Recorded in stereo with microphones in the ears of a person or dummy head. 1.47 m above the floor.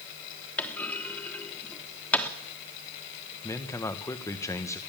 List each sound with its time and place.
0.6 s a clunk: 5° left (ahead or behind), 1.1 m
3.4 s a man speaking: 15° left (ahead or behind), 1.1 m